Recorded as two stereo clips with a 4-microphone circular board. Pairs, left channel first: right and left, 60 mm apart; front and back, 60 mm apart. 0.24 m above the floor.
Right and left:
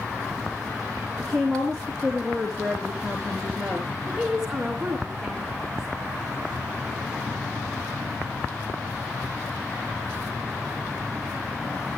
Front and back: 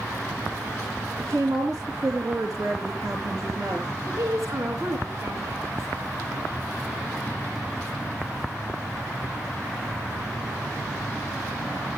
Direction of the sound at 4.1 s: 170° left.